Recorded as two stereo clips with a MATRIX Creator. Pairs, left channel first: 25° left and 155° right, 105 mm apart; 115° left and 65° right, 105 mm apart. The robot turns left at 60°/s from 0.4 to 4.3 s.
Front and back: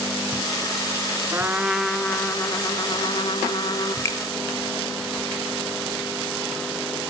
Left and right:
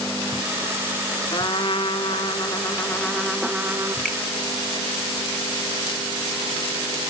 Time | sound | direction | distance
1.3 | a trumpet | 145° left | 0.6 m
4.0 | a finger snap | 40° left | 0.9 m